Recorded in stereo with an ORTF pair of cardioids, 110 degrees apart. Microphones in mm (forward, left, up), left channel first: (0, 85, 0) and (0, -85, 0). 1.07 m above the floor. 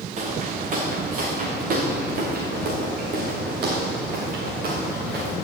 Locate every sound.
0.2 s footsteps: 45° right, 4.5 m; by 5.3 s 75° right, 6 m